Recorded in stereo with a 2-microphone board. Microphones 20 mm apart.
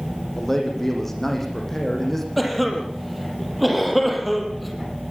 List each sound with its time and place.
0.4 s a man speaking: 15° left (ahead or behind), 6.5 m
2.4 s a cough: centre (ahead or behind), 5.5 m